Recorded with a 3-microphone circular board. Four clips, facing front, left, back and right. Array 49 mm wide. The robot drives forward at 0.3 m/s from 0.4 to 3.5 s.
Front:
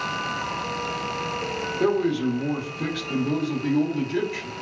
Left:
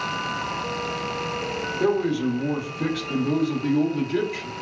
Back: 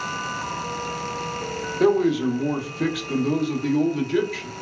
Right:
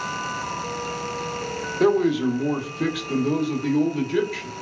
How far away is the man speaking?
About 0.7 m.